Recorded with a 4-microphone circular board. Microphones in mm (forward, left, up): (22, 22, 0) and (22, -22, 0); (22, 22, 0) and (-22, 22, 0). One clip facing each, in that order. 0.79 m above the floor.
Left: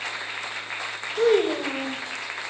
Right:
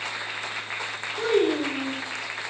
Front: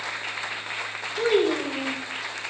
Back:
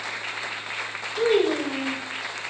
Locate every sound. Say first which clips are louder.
1.2 s a child speaking: left 2 dB, back 1 dB; 100° left, 1.8 m